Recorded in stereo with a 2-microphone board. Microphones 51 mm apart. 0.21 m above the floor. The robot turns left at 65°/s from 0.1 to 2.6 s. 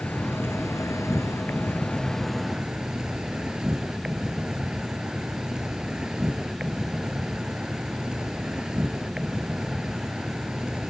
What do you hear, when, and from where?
0.0 s an insect: 145° left; by 10.9 s 15° right